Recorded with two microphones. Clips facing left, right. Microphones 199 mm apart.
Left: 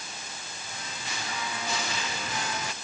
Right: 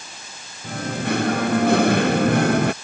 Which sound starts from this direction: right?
Singing, at 0.6 s.